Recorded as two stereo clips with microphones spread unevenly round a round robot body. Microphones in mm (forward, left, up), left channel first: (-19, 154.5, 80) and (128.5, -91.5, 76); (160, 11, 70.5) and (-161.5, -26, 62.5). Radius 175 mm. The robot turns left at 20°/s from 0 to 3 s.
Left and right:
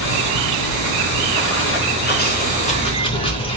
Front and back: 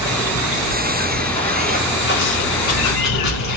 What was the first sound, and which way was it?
Running water, 110° left.